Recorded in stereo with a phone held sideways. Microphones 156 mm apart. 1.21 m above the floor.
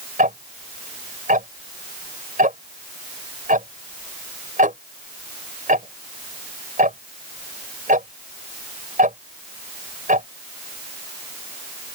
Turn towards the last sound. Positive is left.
turn(degrees=-65)  # may be behind; listen again after turning